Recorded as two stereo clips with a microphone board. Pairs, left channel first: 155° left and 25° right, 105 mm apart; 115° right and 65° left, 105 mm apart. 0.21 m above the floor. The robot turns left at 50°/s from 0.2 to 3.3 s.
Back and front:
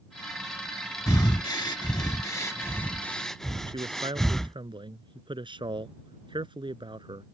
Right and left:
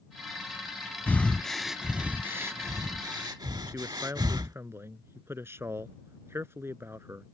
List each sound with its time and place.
1.1 s breathing: 175° right; by 4.5 s 75° left
3.7 s a man speaking: 5° left